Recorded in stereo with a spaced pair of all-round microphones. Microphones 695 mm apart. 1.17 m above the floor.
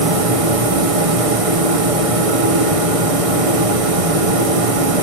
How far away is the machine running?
About 0.8 m.